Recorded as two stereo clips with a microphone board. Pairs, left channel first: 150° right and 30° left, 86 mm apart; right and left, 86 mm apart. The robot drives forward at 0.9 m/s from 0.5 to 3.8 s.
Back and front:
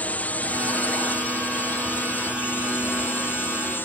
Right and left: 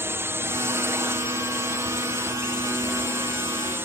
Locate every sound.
0.0 s a drone: 140° left; by 3.9 s 150° left